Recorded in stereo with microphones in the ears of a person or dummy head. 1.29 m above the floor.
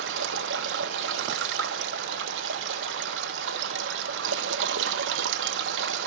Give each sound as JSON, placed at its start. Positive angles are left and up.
{"t": 0.0, "sound": "running water", "side_deg": -70, "distance_m": 1.2}